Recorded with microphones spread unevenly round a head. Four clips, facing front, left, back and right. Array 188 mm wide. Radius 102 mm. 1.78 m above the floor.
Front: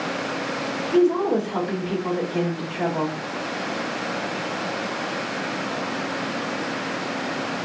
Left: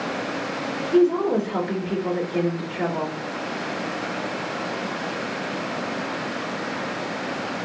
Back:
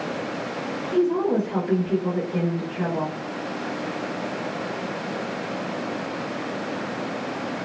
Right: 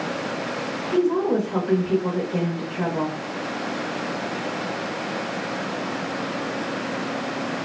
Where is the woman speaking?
125° right, 1.1 m.